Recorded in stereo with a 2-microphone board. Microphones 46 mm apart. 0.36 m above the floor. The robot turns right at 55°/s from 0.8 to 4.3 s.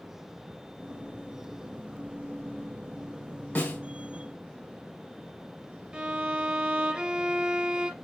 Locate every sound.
3.5 s a snare drum: 45° left (ahead or behind), 1.7 m; by 3.8 s 50° left (ahead or behind), 1.7 m
5.9 s a violin: 20° right (ahead or behind), 0.5 m